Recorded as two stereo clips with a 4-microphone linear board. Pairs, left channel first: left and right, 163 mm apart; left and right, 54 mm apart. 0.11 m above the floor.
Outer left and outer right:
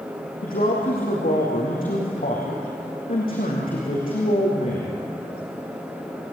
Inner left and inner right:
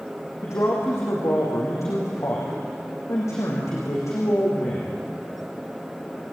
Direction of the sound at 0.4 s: 60° left (ahead or behind).